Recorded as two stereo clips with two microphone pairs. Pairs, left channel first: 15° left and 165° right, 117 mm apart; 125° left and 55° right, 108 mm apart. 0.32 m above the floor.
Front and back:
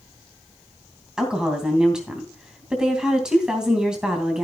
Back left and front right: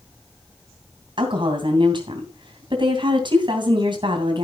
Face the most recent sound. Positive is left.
turn(degrees=-85)